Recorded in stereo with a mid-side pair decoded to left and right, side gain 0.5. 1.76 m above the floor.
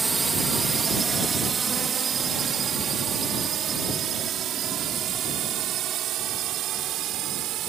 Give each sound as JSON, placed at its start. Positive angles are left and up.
{"t": 0.0, "sound": "a drone", "azimuth_deg": -25}